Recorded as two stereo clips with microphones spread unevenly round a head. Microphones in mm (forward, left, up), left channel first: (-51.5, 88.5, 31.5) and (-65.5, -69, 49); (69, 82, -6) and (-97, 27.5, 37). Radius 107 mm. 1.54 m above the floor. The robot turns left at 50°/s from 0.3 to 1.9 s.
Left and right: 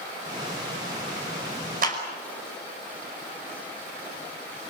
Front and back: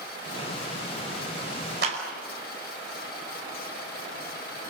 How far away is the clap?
About 5 m.